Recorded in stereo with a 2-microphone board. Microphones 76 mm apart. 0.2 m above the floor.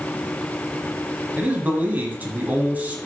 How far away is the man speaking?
About 1.2 m.